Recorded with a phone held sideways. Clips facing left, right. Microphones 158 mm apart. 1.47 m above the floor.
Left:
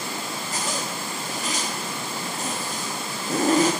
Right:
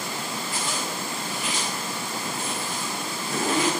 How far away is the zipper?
About 3 m.